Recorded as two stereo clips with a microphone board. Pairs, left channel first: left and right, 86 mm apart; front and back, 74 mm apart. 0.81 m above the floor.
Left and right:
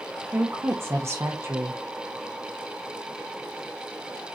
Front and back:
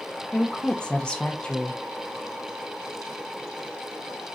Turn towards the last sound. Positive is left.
turn(degrees=-65)